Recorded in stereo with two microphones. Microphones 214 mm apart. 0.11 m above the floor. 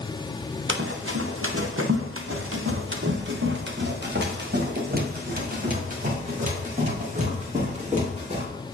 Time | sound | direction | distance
0.7 | running footsteps | 65° right (ahead or behind) | 1.5 m